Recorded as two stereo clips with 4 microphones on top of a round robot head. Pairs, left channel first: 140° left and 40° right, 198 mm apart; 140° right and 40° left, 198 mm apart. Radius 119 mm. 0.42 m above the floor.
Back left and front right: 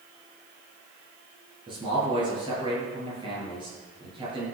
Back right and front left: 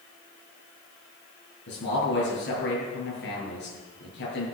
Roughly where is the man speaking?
Right.